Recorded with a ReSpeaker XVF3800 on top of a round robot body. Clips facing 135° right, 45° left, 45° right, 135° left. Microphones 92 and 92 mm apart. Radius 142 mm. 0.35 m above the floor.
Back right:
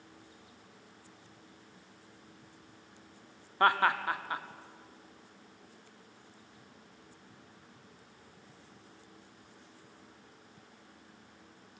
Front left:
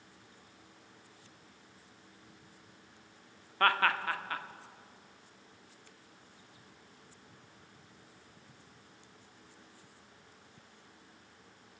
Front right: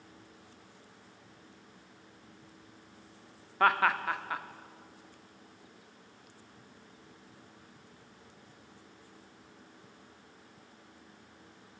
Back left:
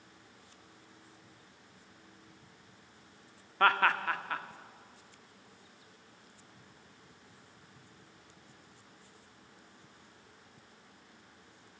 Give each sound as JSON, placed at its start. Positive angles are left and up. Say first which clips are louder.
{"t": 3.6, "sound": "laughter", "louder": "back right 2 dB, front right 1 dB", "azimuth_deg": -120, "distance_m": 1.3}